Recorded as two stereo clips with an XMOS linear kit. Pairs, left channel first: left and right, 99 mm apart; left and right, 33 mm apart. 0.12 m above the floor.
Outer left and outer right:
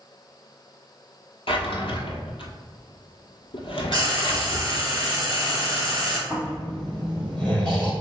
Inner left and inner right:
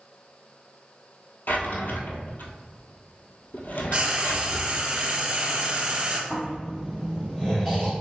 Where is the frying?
35° right (ahead or behind), 1.2 m.